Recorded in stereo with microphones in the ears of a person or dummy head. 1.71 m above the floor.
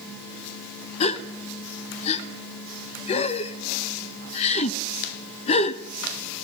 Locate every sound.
1.0 s a gasp: 35° left (ahead or behind), 1.2 m